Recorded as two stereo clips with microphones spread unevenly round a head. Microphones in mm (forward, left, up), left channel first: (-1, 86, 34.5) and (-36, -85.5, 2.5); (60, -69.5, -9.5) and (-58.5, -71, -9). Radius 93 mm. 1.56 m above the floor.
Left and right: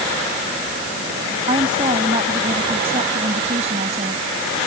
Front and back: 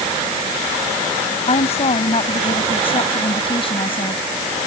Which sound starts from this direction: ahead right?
A woman speaking, at 1.5 s.